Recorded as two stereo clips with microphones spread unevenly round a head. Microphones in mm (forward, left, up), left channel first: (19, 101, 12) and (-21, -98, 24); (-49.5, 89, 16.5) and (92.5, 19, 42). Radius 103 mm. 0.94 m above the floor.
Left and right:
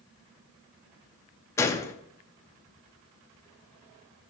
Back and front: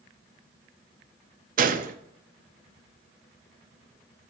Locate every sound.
1.6 s a gunshot: straight ahead, 0.5 m